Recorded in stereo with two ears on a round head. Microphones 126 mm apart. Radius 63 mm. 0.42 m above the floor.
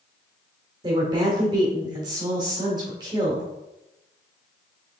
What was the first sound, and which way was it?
A woman speaking, 30° right (ahead or behind).